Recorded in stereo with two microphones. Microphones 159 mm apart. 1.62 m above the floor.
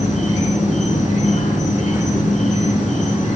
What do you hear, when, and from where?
0.0 s an insect: 50° left (ahead or behind), 3 m